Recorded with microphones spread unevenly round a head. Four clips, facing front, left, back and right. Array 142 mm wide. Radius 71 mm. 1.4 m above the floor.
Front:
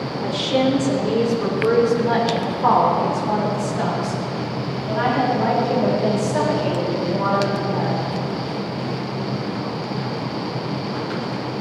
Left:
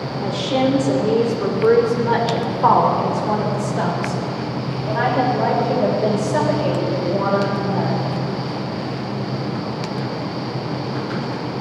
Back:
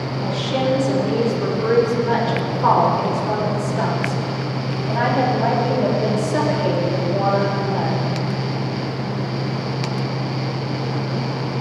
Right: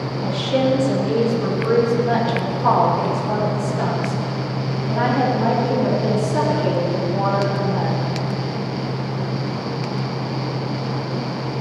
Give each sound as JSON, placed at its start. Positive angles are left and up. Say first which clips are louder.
{"t": 0.2, "sound": "a woman speaking", "louder": "left 1 dB, front 2 dB", "azimuth_deg": 80, "distance_m": 3.5}